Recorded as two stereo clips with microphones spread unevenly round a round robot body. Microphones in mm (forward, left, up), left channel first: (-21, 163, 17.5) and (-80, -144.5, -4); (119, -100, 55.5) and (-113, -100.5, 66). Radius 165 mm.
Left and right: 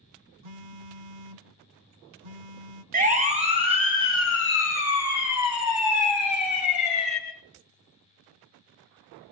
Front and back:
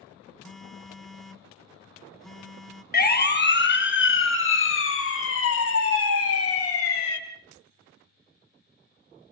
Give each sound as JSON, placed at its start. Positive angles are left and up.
{"t": 0.4, "sound": "a phone buzzing", "azimuth_deg": -90, "distance_m": 1.4}
{"t": 2.9, "sound": "a siren", "azimuth_deg": -40, "distance_m": 2.5}